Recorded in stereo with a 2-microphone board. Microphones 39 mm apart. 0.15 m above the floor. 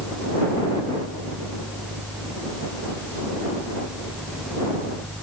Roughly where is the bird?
No bird in this recording.